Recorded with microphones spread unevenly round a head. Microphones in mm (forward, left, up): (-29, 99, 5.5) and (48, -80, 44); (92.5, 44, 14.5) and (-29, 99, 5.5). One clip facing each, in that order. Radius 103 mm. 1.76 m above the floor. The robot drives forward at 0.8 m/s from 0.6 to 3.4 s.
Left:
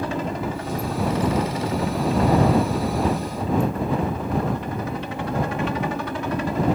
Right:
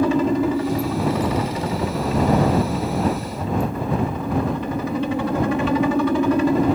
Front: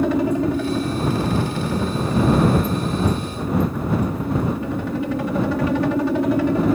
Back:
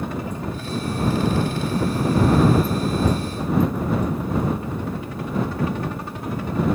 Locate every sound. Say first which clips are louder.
0.0 s a helicopter: right 9 dB, front 10 dB; 60° right; by 6.8 s 65° right